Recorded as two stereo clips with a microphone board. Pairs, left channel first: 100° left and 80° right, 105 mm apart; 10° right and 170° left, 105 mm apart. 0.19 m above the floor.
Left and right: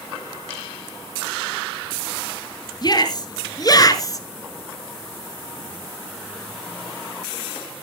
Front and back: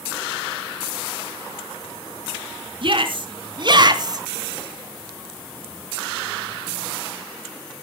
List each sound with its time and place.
2.8 s a shout: 140° left, 2.5 m